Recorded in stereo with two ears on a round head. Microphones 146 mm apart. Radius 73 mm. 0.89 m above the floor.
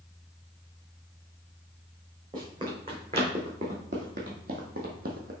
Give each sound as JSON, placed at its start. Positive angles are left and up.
{"t": 2.3, "sound": "running footsteps", "side_deg": -30, "distance_m": 3.0}